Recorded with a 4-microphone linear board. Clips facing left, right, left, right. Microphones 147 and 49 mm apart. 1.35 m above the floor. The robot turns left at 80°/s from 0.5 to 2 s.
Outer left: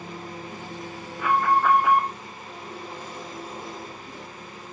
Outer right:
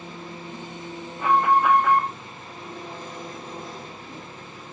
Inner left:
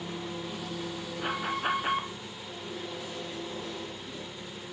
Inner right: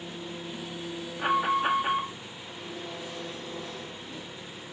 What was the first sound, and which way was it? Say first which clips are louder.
An engine running: outer left 1 dB, inner left 2 dB; 130° left.